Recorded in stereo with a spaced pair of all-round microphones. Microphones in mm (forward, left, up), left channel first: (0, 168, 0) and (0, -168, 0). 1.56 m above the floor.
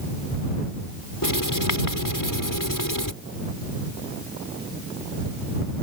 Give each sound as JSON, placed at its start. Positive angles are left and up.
{"t": 1.2, "sound": "writing", "side_deg": 80}